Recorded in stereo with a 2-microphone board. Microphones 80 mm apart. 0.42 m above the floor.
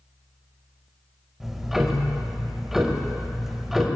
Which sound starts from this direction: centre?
Ticking, at 1.4 s.